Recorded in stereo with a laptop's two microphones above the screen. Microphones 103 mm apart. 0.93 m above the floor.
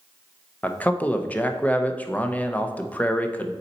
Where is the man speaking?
15° left (ahead or behind), 0.5 m.